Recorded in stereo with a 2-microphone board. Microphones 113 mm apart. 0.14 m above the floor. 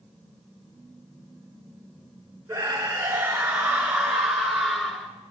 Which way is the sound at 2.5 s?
25° right (ahead or behind).